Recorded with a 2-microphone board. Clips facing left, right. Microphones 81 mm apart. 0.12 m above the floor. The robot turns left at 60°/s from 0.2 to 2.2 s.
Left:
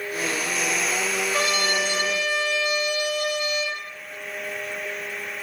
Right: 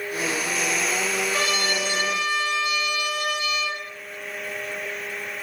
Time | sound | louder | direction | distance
1.3 | a trumpet | left 1 dB | 160° left | 5.5 m